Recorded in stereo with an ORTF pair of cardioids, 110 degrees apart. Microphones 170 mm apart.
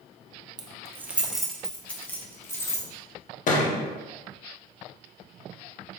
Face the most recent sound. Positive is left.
turn(degrees=50)